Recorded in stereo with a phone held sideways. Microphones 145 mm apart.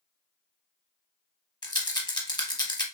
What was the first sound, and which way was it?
A rattle, 30° left (ahead or behind).